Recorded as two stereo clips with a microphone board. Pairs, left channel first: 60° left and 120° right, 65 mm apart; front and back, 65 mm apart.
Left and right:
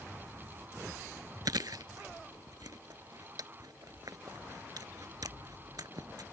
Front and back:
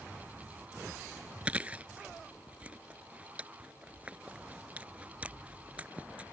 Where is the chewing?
110° right.